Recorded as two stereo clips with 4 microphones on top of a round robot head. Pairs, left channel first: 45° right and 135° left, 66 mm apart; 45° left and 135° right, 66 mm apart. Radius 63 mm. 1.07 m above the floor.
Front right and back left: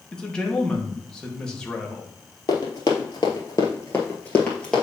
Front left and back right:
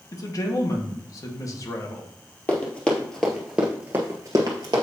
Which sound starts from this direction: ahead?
Running footsteps, at 2.5 s.